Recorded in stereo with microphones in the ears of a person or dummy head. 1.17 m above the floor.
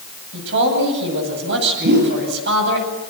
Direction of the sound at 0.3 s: 65° right (ahead or behind).